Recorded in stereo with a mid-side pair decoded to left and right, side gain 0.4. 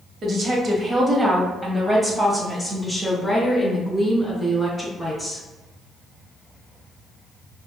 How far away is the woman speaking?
About 1.4 m.